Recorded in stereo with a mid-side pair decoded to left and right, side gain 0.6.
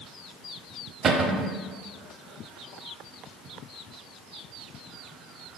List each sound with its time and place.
1.0 s a cupboard door: 40° right, 0.7 m